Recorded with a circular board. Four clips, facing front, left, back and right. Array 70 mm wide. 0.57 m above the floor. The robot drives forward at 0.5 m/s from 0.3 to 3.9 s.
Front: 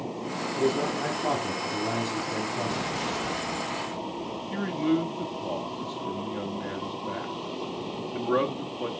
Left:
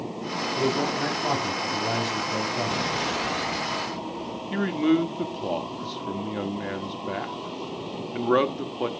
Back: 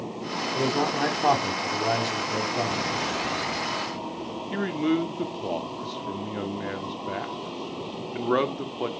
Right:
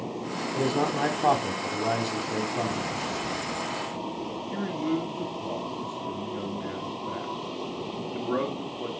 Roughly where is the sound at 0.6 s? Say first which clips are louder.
Even, back 1 dB; behind right.